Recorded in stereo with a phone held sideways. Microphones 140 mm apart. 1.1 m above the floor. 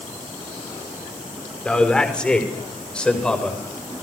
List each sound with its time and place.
1.6 s a man speaking: 5° left (ahead or behind), 4.5 m